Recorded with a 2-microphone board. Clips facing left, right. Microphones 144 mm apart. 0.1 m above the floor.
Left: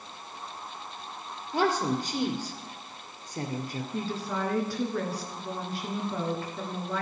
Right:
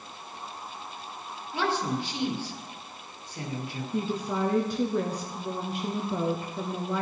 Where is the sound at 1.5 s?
50° left (ahead or behind), 2 m.